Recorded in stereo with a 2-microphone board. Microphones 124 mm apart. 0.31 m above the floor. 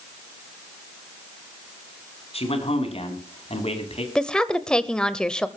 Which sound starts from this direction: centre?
A woman speaking, at 4.2 s.